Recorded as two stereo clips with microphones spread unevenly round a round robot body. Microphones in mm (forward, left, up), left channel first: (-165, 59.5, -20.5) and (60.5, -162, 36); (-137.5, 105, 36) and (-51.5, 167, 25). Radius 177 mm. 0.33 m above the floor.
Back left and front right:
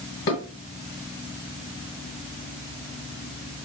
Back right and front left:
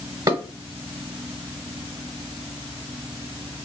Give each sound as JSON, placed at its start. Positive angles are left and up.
{"t": 0.3, "sound": "dishes clattering", "azimuth_deg": 85, "distance_m": 1.1}